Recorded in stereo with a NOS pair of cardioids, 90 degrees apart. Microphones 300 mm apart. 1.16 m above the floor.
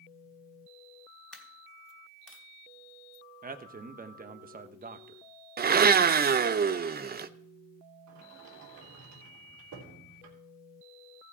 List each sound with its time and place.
1.3 s a dropped coin: 5° left, 3 m
3.4 s a man speaking: 30° right, 1.1 m
5.6 s a blender: 30° right, 0.6 m
8.1 s a sliding door: 70° right, 3 m